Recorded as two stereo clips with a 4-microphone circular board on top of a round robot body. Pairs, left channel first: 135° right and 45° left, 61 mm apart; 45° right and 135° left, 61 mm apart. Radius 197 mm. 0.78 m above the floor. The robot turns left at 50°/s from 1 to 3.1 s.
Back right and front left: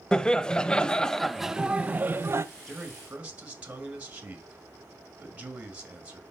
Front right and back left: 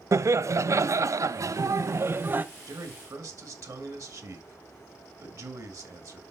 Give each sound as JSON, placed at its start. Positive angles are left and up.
{"t": 0.1, "sound": "laughter", "azimuth_deg": 155, "distance_m": 0.7}
{"t": 2.7, "sound": "a man speaking", "azimuth_deg": 135, "distance_m": 1.8}